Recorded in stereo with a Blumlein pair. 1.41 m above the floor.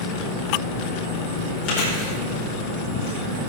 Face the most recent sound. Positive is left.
turn(degrees=35)